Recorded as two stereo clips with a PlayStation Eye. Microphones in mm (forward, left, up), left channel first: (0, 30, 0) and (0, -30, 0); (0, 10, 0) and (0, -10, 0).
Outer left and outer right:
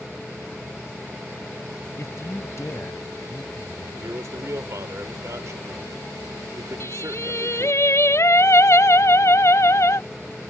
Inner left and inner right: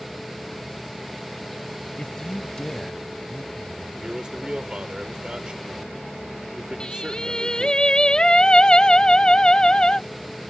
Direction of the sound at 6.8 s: 55° left (ahead or behind).